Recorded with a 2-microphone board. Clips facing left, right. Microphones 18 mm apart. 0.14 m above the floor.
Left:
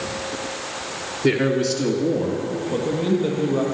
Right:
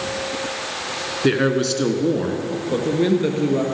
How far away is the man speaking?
About 1.4 m.